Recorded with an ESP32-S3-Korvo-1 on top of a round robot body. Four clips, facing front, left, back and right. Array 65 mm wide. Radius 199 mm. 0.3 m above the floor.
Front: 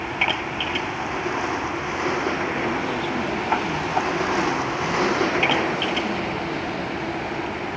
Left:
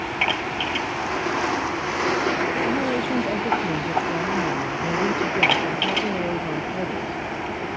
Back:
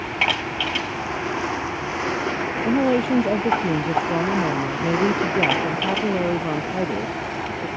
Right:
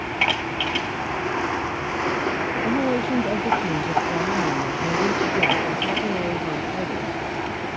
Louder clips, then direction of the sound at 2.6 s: Right 1 dB, back 6 dB; 170° right.